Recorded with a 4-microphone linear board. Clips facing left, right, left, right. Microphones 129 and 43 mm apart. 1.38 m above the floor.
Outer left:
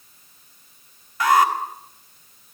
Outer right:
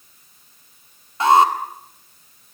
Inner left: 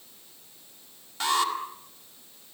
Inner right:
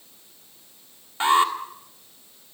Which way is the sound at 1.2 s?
30° right (ahead or behind).